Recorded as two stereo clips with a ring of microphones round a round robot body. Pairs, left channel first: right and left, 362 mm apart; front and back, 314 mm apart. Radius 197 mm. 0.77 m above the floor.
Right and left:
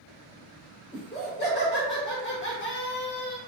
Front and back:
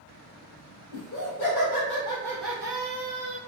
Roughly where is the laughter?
Ahead right.